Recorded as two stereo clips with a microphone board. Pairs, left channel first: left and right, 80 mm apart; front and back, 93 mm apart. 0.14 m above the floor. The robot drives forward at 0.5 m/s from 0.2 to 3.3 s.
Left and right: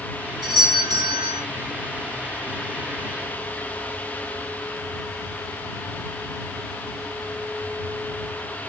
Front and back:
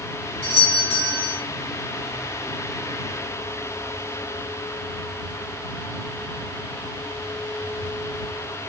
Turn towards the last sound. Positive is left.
turn(degrees=-95)